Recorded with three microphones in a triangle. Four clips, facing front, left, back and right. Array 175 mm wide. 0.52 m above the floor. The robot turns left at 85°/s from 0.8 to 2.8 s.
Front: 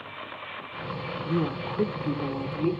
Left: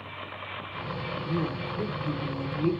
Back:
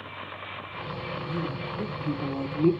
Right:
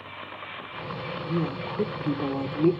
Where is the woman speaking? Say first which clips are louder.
Right 2 dB, front 7 dB; 5° left, 1.0 m; by 2.7 s 115° right, 1.0 m.